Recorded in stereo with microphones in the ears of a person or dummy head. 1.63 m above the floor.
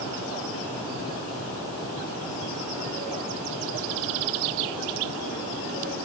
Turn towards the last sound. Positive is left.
No sound to turn to.